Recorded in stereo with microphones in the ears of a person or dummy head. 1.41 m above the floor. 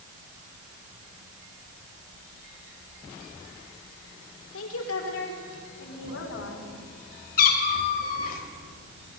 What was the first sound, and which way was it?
A woman speaking, 80° left.